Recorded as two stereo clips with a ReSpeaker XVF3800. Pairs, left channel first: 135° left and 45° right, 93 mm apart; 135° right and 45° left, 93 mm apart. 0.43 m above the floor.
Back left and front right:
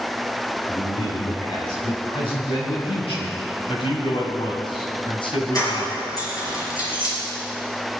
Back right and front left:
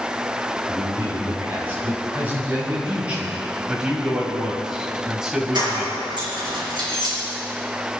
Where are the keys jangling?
85° left, 6 m.